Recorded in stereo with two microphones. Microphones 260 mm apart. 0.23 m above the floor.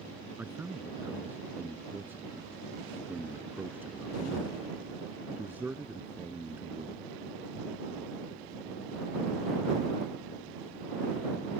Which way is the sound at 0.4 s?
5° right (ahead or behind).